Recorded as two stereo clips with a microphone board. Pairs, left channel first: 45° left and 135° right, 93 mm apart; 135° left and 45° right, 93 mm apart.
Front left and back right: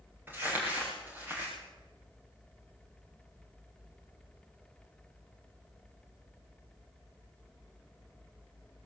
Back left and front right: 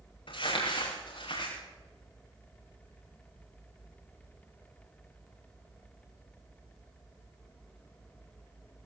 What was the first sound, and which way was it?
Crumpling, 155° left.